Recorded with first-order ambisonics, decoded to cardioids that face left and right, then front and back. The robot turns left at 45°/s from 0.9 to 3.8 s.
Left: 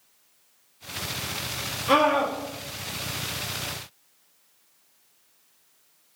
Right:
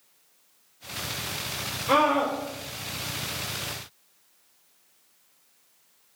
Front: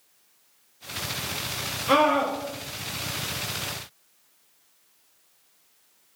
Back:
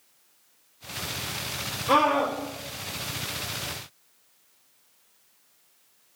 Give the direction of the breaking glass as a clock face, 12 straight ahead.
No breaking glass in this recording.